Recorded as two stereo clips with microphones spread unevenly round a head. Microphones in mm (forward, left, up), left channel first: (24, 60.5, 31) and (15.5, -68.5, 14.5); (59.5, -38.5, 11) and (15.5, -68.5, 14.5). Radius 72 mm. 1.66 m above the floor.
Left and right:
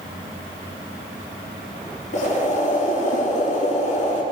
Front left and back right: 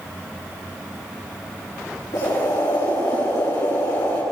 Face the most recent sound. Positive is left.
turn(degrees=60)